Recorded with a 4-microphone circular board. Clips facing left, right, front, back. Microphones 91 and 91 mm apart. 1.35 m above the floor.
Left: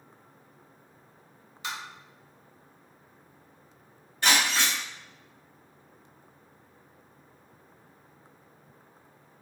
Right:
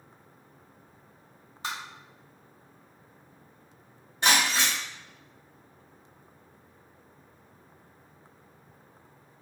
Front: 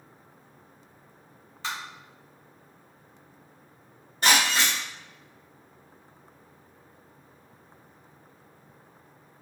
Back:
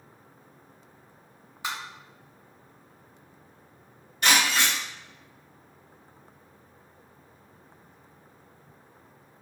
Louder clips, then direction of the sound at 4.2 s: Right 1 dB, even; 35° right.